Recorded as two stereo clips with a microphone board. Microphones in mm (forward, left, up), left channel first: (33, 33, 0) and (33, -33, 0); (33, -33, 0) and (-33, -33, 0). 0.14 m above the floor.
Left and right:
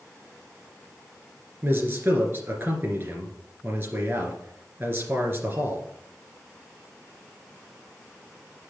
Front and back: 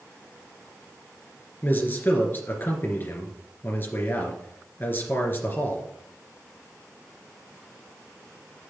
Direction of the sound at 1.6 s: 45° right.